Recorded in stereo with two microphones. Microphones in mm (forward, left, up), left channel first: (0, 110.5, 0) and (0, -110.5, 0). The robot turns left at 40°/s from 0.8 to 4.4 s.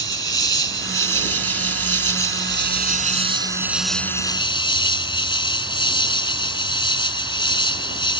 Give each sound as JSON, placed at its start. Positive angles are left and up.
{"t": 0.0, "sound": "an insect", "azimuth_deg": -55}